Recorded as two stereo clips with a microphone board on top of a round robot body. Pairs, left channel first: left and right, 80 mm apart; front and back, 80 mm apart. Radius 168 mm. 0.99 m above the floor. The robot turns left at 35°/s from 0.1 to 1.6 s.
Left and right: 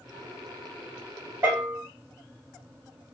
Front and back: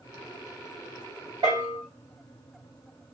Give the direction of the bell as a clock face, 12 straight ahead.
5 o'clock.